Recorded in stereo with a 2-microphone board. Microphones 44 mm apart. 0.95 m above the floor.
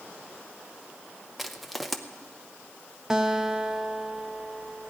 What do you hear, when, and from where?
1.4 s crushing: centre (ahead or behind), 0.7 m
3.1 s a guitar: 10° right (ahead or behind), 0.6 m